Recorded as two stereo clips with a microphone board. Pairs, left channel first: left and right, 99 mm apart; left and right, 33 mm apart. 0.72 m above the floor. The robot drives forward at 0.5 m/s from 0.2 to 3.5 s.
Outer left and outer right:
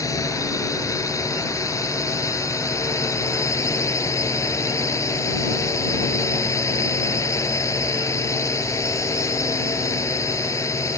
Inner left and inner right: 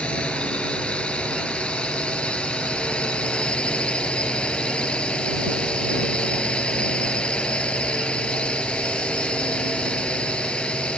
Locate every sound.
0.0 s a drone: 35° left (ahead or behind)